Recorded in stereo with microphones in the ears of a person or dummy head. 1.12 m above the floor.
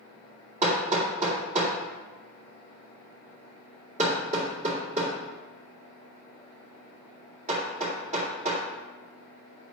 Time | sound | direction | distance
0.6 | hammering | 40° right (ahead or behind) | 2 m